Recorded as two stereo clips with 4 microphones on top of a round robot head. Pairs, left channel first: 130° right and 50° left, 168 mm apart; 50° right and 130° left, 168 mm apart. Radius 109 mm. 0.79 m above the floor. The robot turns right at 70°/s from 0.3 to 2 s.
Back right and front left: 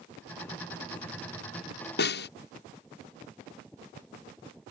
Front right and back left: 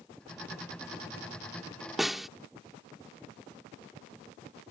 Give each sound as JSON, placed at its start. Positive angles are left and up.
{"t": 2.0, "sound": "a snare drum", "azimuth_deg": -145}